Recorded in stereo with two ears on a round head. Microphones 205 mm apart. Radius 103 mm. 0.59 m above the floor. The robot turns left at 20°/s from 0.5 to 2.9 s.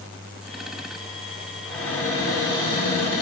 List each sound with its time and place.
1.6 s a cupboard door: 5° left (ahead or behind), 1.9 m; by 3.2 s 25° left (ahead or behind), 1.9 m